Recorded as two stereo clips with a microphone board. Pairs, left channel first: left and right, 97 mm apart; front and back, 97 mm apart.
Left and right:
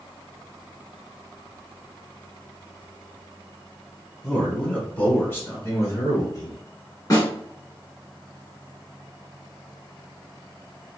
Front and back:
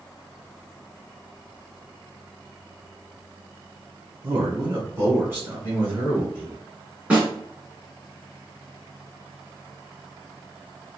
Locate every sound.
4.2 s a man speaking: 175° left, 1.7 m; by 6.6 s 105° left, 2 m
7.1 s a snare drum: 110° left, 1.6 m